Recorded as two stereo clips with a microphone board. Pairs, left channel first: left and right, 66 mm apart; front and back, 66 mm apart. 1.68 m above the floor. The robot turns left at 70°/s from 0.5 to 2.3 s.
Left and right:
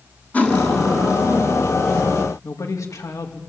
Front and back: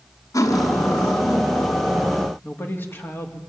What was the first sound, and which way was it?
Cutlery clinking, 25° left.